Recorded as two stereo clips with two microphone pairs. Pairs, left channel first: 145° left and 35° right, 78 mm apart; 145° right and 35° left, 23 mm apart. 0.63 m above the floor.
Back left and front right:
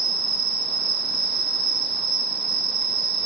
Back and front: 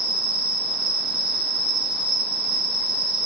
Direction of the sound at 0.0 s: 60° left.